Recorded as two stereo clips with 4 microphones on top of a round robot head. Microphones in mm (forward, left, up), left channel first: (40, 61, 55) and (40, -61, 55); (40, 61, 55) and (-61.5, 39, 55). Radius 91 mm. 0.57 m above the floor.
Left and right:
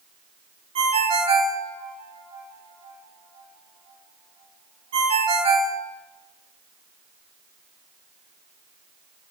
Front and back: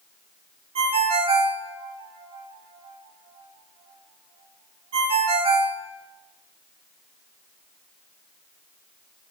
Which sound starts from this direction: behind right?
A ringtone, at 0.8 s.